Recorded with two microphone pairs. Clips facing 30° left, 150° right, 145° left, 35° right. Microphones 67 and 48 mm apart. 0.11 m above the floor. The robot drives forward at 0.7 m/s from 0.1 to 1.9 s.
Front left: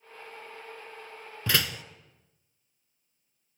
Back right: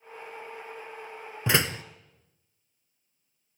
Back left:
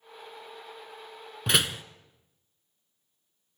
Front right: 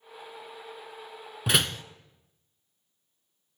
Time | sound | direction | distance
1.5 | a door slam | 115° right | 0.8 m